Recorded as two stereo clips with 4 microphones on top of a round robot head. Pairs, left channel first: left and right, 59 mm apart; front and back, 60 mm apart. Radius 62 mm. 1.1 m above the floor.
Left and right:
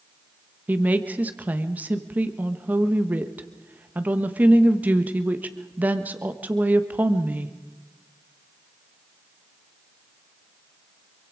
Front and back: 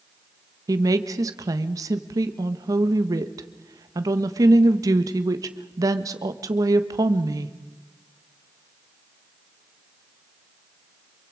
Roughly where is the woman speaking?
Behind right.